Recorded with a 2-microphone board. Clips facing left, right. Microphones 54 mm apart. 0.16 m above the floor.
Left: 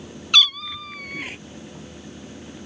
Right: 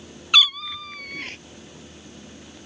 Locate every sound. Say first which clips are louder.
0.3 s a cat meowing: even; 10° right (ahead or behind); by 1.4 s 10° left (ahead or behind)